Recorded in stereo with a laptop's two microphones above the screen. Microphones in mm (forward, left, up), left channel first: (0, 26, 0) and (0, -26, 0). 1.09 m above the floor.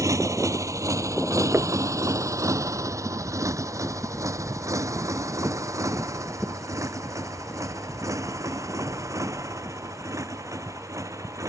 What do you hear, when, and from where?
0.0 s a motorcycle: 85° right
1.5 s knocking: 55° right (ahead or behind)